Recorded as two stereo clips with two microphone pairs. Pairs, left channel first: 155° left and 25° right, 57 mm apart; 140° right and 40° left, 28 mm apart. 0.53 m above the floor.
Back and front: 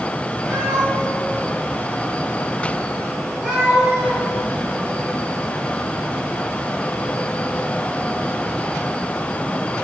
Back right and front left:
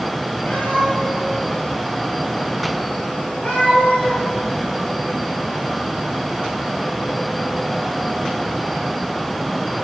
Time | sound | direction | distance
0.5 | a cat meowing | 125° right | 5 m